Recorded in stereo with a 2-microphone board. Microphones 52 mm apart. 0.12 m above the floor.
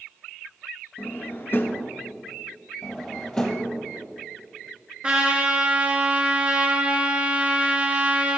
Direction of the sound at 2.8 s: 20° left (ahead or behind).